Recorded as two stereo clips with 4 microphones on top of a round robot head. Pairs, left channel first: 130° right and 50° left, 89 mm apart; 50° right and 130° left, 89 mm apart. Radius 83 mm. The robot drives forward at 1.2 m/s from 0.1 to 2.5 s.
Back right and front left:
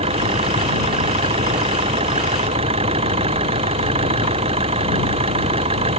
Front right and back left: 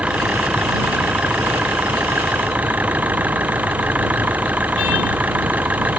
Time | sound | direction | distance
0.0 | an engine running | 55° left | ?